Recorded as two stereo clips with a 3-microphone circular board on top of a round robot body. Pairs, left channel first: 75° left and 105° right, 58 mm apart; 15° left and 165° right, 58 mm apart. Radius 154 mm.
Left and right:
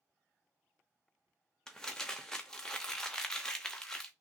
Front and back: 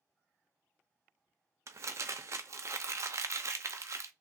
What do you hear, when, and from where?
1.7 s crumpling: 155° left, 0.6 m